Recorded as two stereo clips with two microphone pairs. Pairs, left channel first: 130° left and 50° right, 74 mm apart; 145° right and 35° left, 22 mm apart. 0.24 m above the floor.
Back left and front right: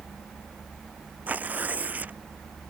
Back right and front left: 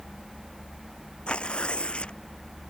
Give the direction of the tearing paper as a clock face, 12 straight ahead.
4 o'clock.